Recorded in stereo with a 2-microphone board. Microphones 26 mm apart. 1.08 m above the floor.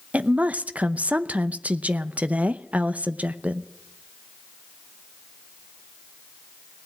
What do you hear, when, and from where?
0.1 s a woman speaking: 65° right (ahead or behind), 0.7 m